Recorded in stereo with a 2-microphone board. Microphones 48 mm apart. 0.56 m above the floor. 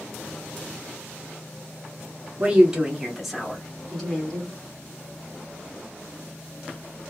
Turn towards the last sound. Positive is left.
turn(degrees=15)  # may be behind; listen again after turning